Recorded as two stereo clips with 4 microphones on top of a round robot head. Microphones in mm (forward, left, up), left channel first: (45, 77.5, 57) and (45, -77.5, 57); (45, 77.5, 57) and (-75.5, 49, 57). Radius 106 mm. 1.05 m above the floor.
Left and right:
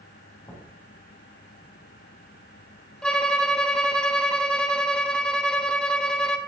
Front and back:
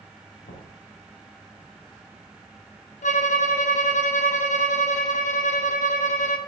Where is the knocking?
20° left, 5 m.